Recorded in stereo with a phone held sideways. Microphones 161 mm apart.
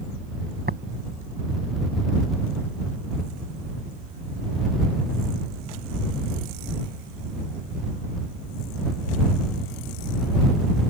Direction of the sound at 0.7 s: 80° right.